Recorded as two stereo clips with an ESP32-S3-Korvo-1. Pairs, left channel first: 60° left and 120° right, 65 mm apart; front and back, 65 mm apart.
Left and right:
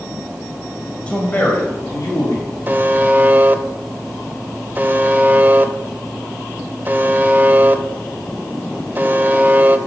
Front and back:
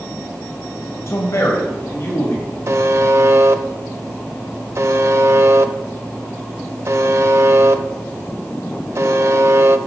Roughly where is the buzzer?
Behind.